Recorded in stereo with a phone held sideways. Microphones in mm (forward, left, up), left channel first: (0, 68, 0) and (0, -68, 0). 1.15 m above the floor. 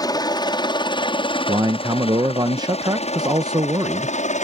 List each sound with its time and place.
0.0 s a helicopter: 30° left (ahead or behind); by 4.5 s 60° left (ahead or behind)
1.5 s a man speaking: 30° right (ahead or behind)